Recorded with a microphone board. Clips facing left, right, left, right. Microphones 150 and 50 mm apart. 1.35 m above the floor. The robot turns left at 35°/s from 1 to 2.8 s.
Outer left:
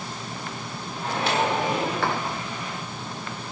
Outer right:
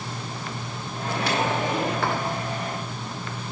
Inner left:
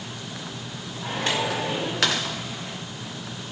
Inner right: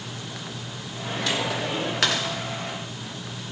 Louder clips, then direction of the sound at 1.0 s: Outer left 1 dB, inner left 1 dB; 35° left.